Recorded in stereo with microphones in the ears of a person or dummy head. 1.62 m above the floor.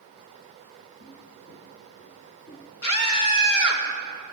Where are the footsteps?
60° left (ahead or behind), 3.5 m; by 2.7 s 50° left (ahead or behind), 3.5 m.